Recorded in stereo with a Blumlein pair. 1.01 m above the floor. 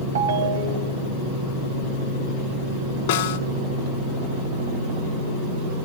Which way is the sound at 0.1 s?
65° right.